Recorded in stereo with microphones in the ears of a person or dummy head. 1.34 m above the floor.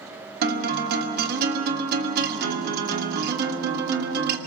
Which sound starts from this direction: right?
A guitar, at 0.4 s.